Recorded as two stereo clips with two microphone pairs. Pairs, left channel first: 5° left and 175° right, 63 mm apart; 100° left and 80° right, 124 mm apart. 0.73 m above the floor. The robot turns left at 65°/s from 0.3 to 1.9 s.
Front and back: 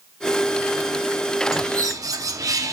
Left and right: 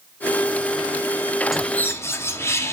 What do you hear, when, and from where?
1.5 s a bird: 165° right, 0.6 m; by 2.7 s 170° left, 0.6 m